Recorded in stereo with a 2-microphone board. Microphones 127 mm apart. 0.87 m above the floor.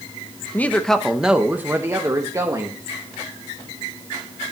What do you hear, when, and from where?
0.5 s a woman speaking: 15° left (ahead or behind), 0.8 m; by 2.8 s 30° right (ahead or behind), 1.4 m